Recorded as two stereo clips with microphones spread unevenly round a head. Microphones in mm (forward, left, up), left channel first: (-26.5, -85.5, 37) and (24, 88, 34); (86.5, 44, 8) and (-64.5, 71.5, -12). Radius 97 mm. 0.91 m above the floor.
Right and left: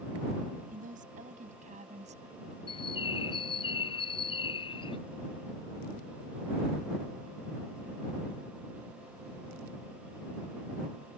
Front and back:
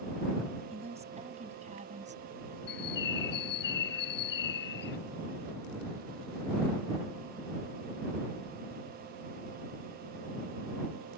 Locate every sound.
0.7 s a woman speaking: 120° left; by 2.6 s 130° left
2.7 s a bird: 40° right